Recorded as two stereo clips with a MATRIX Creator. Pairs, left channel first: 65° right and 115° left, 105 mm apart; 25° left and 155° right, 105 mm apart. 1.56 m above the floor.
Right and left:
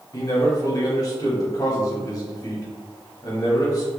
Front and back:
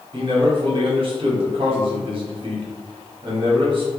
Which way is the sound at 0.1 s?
120° right.